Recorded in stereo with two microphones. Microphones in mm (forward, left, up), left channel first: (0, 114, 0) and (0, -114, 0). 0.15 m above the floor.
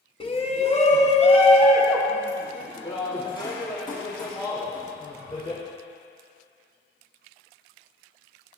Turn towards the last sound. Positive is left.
turn(degrees=20)  # may be behind; listen again after turning